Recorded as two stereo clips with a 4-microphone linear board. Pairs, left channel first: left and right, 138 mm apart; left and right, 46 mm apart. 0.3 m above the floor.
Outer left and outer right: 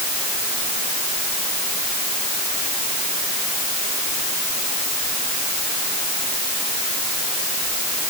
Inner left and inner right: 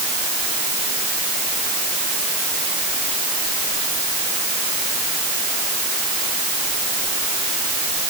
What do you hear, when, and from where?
Only background noise.